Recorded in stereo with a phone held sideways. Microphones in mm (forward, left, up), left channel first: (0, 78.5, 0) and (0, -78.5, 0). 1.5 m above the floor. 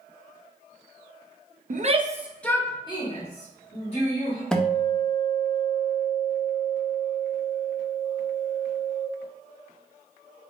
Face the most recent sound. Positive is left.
turn(degrees=5)  # may be behind; listen again after turning